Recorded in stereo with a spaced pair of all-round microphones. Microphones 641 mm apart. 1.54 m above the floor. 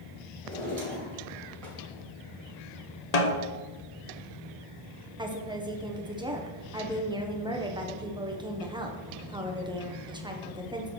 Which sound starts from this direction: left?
A snare drum, at 3.1 s.